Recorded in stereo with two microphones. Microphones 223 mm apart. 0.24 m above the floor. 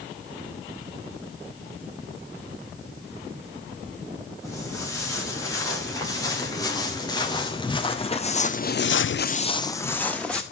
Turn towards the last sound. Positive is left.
turn(degrees=5)  # may be behind; listen again after turning